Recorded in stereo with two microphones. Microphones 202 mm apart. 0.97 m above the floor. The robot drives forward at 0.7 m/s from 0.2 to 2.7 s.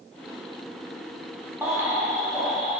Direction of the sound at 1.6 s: 10° right (ahead or behind).